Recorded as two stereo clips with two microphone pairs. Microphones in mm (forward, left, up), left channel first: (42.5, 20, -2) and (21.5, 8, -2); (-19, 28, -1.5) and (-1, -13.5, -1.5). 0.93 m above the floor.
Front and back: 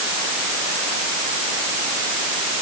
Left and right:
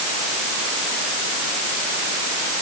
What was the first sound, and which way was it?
Only background noise.